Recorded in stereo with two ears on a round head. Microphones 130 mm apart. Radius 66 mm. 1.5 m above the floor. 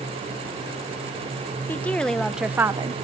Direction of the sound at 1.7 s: 10° left (ahead or behind).